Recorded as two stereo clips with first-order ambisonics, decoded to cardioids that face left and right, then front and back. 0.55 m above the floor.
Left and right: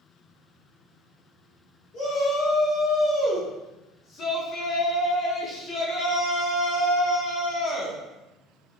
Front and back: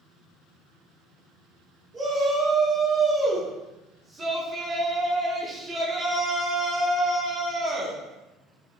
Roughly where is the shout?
Behind left.